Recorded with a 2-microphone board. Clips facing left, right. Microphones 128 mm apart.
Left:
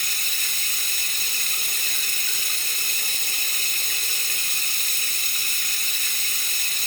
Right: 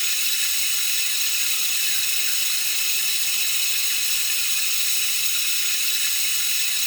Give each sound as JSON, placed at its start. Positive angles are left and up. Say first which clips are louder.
{"t": 0.0, "sound": "running water", "louder": "left 1 dB", "side_deg": 50, "distance_m": 1.3}